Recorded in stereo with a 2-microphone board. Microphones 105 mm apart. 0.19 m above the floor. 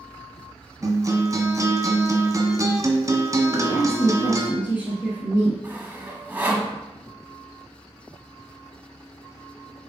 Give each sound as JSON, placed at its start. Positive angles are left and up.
{"t": 0.8, "sound": "a guitar", "side_deg": -30, "distance_m": 1.3}
{"t": 3.5, "sound": "a woman speaking", "side_deg": 45, "distance_m": 2.0}
{"t": 5.6, "sound": "sawing", "side_deg": -15, "distance_m": 1.3}